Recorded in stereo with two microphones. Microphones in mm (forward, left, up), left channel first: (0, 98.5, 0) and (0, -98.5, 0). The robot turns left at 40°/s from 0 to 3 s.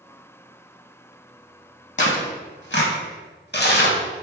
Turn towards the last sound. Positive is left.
turn(degrees=60)  # may be behind; listen again after turning